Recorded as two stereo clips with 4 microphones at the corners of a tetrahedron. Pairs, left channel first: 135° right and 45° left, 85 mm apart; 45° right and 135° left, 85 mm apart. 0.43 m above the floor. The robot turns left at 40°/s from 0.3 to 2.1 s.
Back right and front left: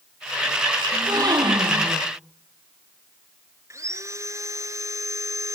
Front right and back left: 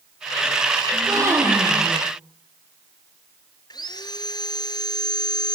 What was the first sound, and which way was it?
A gasp, 95° left.